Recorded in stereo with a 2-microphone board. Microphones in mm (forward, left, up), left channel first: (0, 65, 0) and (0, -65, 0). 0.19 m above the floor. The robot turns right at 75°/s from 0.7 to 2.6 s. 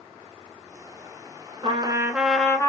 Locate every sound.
1.6 s a trumpet: 50° right, 0.8 m; by 2.7 s 25° left, 0.8 m